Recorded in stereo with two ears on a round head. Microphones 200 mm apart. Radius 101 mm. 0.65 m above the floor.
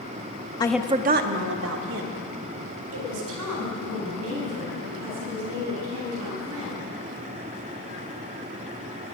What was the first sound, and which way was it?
A woman speaking, 20° left (ahead or behind).